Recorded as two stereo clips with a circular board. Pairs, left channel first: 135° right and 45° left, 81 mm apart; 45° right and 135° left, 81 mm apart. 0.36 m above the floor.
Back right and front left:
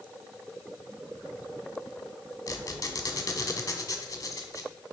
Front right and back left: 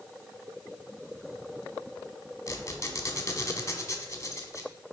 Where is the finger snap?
I don't hear a finger snap.